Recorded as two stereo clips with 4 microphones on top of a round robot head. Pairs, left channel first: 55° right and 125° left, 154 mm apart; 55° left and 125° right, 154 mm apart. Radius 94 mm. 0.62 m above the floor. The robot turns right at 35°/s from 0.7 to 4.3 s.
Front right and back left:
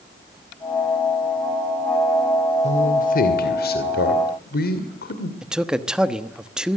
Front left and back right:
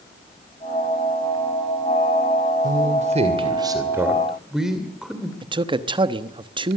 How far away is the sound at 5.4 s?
About 1.1 m.